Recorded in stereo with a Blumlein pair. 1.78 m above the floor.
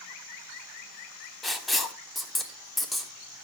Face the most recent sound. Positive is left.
turn(degrees=10)